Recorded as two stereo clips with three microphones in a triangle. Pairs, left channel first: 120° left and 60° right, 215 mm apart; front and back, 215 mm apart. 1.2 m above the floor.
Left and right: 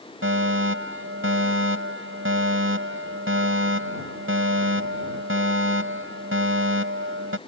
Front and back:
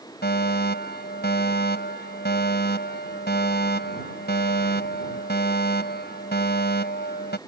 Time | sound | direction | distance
0.2 | a fire alarm | 40° right | ?